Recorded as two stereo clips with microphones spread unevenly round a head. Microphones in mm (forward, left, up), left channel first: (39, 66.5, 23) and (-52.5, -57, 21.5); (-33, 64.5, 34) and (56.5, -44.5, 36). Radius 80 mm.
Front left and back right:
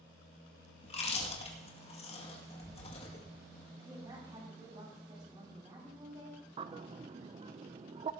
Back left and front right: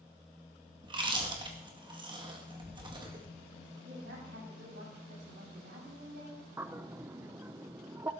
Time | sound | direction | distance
0.8 | chewing | 5° left | 2 m
3.8 | a woman speaking | 60° right | 6 m
6.6 | a bird | 110° right | 0.6 m